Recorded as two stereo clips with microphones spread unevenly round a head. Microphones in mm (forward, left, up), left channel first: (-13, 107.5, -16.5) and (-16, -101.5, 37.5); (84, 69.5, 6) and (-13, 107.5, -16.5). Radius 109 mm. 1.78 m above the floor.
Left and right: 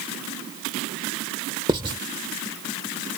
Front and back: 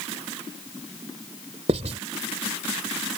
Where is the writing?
150° right.